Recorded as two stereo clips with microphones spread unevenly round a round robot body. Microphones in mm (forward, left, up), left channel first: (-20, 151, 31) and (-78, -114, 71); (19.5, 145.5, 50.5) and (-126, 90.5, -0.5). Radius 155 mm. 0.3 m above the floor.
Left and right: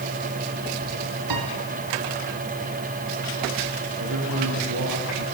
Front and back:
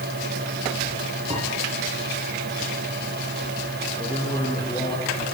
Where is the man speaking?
55° right, 6.5 m.